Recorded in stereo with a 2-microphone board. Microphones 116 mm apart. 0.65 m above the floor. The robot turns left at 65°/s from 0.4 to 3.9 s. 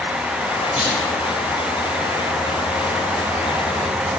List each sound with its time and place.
0.8 s a clunk: 55° left (ahead or behind), 3.5 m; by 1.0 s 45° left (ahead or behind), 3.5 m